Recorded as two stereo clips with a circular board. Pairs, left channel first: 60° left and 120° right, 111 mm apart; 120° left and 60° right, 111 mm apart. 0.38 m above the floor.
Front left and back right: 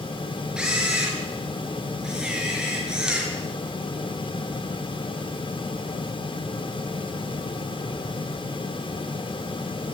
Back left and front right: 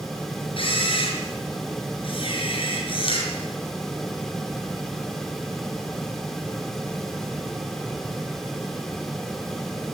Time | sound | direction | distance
0.6 | a camera shutter | 160° left | 5.5 m